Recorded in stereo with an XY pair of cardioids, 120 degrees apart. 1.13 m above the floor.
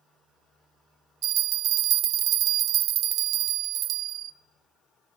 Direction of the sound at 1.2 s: 65° right.